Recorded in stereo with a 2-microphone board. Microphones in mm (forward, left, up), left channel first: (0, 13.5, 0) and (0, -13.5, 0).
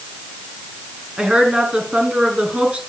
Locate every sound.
1.2 s a woman speaking: 40° right (ahead or behind), 4.5 m